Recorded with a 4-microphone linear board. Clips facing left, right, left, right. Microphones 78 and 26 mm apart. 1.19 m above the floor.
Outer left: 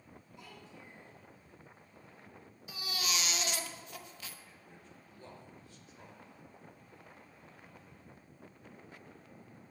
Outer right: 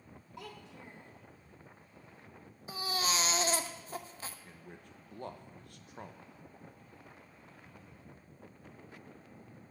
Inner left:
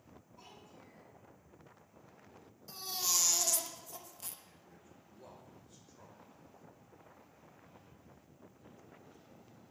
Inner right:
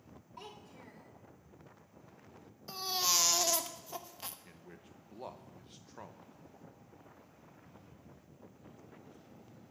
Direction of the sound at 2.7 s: 35° right (ahead or behind).